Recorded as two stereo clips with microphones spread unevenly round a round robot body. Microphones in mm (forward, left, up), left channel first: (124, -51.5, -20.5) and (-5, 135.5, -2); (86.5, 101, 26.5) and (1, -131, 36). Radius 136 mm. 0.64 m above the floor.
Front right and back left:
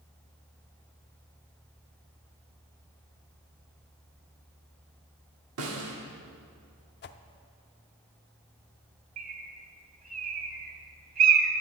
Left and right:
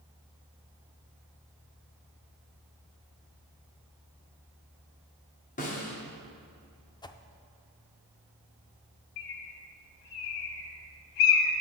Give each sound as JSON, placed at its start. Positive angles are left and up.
{"t": 5.6, "sound": "a snare drum", "azimuth_deg": 125, "distance_m": 1.6}
{"t": 7.0, "sound": "a whoosh", "azimuth_deg": -5, "distance_m": 0.5}
{"t": 9.2, "sound": "a bird", "azimuth_deg": 70, "distance_m": 1.2}